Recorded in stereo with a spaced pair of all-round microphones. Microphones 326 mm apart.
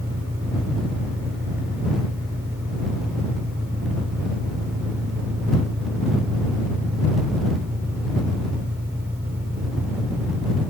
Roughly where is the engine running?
Centre.